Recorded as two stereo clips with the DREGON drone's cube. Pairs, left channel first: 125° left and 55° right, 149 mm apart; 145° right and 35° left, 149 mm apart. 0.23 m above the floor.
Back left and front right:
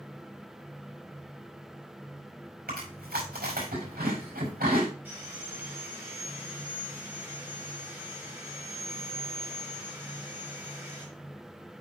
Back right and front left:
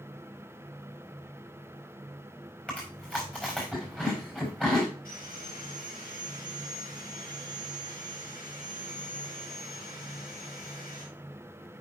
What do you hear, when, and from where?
2.7 s chewing: 65° right, 5 m
5.0 s sawing: 130° right, 3 m